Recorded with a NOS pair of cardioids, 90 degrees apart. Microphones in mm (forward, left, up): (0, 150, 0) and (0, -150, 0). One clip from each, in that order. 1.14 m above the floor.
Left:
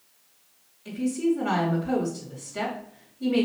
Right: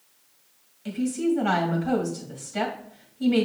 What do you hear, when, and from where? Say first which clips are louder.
0.8 s a woman speaking: even; 65° right, 2.5 m